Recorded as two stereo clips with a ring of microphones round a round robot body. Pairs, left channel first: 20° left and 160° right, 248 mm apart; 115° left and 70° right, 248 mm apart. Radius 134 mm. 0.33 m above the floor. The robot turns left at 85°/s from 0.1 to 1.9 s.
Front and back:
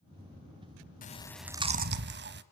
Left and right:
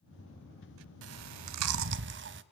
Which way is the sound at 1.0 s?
35° right.